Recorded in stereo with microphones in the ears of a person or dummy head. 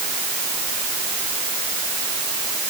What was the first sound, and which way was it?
Only background noise.